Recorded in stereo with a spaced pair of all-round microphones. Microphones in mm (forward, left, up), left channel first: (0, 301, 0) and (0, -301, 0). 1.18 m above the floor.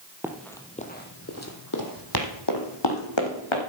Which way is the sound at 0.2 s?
5° right (ahead or behind).